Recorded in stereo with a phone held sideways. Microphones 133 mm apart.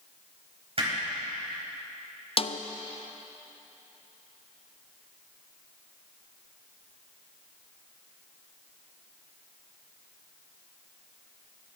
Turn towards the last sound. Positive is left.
turn(degrees=45)  # may be behind; listen again after turning